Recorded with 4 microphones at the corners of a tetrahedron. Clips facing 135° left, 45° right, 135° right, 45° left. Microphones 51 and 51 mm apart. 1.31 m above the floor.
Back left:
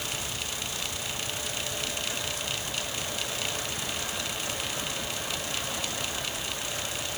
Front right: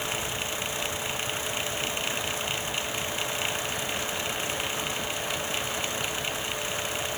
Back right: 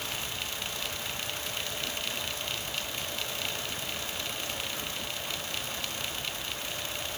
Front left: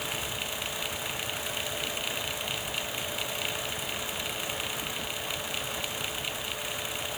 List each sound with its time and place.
Only background noise.